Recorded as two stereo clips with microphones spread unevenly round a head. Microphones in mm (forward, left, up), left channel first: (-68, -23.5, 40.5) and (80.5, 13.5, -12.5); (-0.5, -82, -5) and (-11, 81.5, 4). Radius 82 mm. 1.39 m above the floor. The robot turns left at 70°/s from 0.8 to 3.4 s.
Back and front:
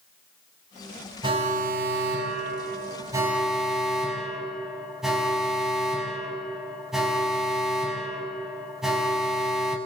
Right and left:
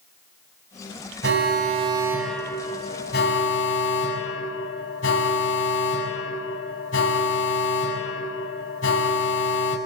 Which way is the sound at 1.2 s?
75° left.